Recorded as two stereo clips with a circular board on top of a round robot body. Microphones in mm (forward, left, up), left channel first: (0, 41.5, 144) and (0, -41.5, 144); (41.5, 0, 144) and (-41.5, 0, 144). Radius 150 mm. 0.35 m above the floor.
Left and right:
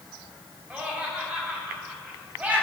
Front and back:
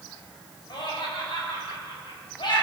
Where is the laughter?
20° right, 3.5 m.